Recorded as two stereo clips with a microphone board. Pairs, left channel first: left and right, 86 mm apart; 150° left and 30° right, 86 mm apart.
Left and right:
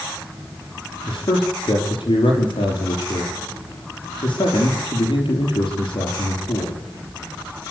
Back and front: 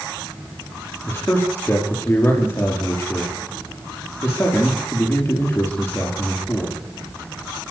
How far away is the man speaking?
About 6 m.